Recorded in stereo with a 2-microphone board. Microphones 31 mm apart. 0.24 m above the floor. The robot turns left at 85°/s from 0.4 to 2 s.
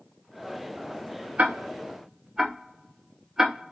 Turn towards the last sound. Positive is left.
turn(degrees=-20)  # may be behind; listen again after turning